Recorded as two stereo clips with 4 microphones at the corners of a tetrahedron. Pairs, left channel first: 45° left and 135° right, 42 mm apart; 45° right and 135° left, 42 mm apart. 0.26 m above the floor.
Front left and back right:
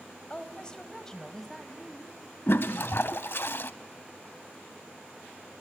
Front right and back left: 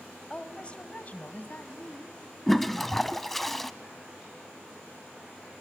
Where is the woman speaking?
10° left, 1.3 m; by 2.2 s 50° right, 1.8 m.